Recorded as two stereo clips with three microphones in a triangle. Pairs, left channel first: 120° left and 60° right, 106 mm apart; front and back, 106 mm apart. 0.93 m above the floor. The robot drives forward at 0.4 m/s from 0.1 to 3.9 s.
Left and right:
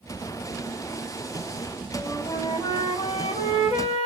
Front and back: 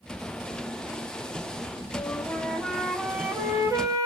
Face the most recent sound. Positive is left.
turn(degrees=125)